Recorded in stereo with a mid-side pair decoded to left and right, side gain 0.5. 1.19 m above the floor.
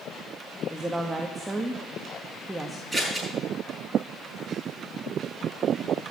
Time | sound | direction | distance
0.7 | a woman speaking | 10° right | 1.5 m
2.9 | scissors | 5° left | 9 m